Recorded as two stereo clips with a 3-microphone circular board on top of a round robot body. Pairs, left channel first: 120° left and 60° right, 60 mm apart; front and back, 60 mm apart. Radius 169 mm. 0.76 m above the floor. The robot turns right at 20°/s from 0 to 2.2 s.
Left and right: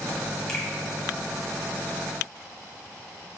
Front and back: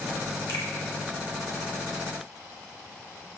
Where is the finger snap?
40° left, 1.1 m.